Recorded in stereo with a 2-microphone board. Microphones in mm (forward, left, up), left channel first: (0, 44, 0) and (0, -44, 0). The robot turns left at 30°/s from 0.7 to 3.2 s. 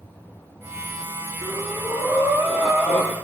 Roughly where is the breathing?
Behind right.